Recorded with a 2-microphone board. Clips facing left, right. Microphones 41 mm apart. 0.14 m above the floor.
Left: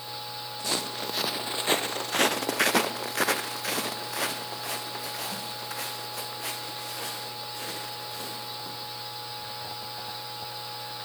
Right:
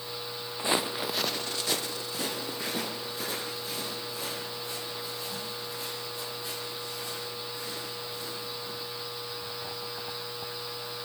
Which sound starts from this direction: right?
Footsteps, at 0.6 s.